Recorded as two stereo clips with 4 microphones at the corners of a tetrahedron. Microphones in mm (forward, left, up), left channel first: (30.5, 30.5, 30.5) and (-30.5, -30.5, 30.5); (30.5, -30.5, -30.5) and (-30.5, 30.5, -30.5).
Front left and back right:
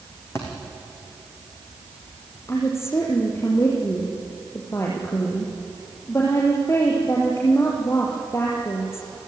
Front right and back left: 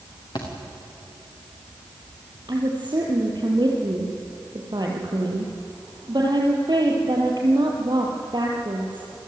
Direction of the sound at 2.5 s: 100° left.